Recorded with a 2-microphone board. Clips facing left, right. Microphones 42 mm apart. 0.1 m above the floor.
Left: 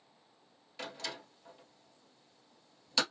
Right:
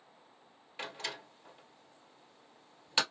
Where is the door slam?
25° right (ahead or behind), 1.6 m.